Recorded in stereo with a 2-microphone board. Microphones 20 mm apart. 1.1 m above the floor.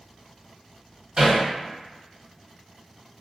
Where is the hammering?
70° right (ahead or behind), 1.9 m.